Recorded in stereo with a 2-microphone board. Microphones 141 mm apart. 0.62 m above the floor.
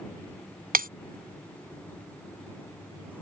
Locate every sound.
0.7 s breaking glass: 80° right